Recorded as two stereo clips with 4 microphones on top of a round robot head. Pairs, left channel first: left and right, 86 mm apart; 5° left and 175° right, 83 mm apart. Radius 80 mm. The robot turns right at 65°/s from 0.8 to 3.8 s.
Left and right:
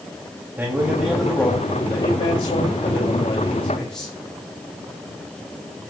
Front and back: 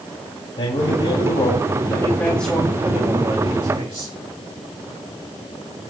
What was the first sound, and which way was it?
A man speaking, 25° right.